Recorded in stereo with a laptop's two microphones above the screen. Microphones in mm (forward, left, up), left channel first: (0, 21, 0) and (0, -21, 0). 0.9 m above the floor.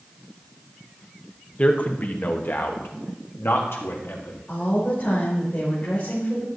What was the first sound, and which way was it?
A man speaking, 30° left (ahead or behind).